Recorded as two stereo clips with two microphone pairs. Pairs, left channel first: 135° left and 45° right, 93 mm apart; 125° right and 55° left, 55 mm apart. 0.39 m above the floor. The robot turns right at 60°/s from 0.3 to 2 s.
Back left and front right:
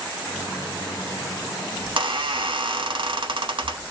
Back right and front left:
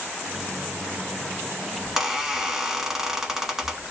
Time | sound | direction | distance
1.8 | a squeak | 40° right | 0.6 m